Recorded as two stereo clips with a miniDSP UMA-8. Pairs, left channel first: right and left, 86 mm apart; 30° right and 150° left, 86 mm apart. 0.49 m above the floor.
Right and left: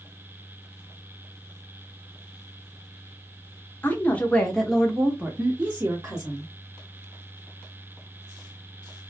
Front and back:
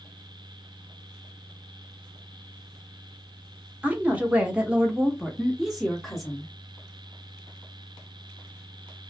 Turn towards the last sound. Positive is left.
turn(degrees=50)